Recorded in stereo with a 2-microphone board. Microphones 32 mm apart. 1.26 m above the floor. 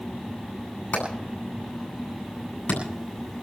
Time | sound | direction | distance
0.9 | hammering | 75° left (ahead or behind) | 9 m